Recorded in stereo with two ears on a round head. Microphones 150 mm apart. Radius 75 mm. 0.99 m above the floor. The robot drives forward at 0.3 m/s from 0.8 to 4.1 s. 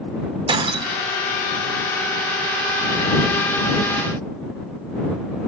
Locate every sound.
0.5 s breaking glass: 35° right (ahead or behind), 2 m; by 1.1 s 30° right (ahead or behind), 2 m